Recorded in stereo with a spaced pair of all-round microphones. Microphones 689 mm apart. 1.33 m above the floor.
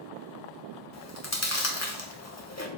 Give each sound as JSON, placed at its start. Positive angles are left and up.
{"t": 0.9, "sound": "chewing", "side_deg": 20, "distance_m": 1.1}